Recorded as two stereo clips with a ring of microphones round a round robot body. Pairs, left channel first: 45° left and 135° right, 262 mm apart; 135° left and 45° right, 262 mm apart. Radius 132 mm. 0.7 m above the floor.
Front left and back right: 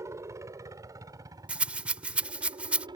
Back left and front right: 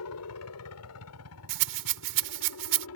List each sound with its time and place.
0.0 s a helicopter: 145° left; by 3.0 s 155° left
1.5 s a rattle: 50° right